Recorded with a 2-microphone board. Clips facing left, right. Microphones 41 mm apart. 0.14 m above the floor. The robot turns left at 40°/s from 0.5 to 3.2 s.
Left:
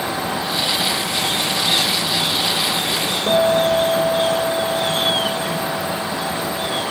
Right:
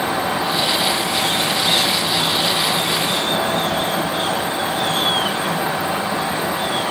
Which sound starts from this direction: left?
A guitar, at 3.3 s.